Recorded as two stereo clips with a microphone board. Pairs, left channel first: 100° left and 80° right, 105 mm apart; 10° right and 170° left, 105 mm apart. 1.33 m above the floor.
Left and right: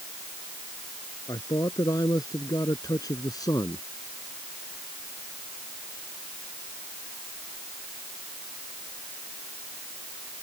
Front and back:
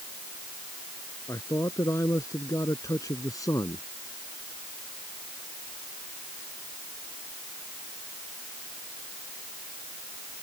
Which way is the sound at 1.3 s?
50° left.